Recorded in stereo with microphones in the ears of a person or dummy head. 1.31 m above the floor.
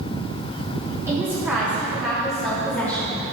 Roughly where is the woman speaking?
Centre.